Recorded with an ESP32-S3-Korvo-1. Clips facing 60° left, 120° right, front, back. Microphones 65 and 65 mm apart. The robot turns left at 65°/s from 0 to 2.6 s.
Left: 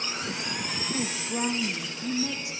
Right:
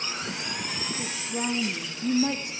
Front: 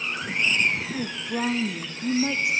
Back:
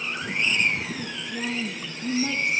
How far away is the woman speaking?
About 1.6 m.